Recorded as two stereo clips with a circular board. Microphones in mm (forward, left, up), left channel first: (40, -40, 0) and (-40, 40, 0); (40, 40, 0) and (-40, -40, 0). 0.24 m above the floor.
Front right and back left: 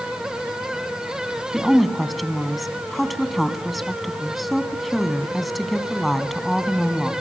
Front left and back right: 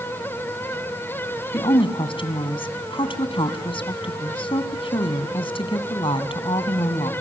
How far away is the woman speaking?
About 2.5 m.